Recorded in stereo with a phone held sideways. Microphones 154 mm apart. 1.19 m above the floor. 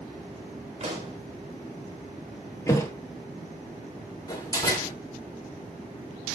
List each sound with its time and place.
0.8 s a pop: 45° right (ahead or behind), 3 m
2.7 s a thud: 20° left (ahead or behind), 1.9 m
4.3 s a door slam: 25° left (ahead or behind), 2.5 m